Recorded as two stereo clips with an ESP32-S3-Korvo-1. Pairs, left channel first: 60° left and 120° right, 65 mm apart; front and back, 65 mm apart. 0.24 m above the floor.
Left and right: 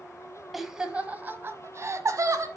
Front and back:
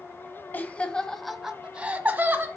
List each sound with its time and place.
0.5 s laughter: 35° right, 1.1 m; by 2.5 s 125° right, 1.5 m